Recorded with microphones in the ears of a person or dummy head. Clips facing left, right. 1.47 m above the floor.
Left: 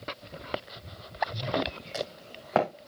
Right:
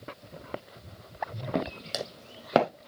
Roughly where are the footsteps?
Right.